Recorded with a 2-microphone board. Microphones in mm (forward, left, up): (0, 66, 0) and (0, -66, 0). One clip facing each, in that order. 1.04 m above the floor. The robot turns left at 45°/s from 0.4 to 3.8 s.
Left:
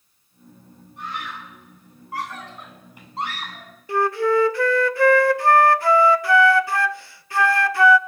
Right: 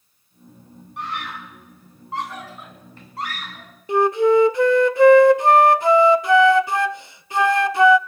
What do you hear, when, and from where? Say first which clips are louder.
1.0 s a scream: right 2 dB; 75° right (ahead or behind), 8 m; by 3.7 s 45° left (ahead or behind), 8 m
3.9 s a flute: right 4 dB; 20° right (ahead or behind), 0.5 m